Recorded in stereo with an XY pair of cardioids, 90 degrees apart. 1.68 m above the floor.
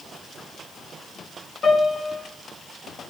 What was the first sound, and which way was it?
A piano, 55° left.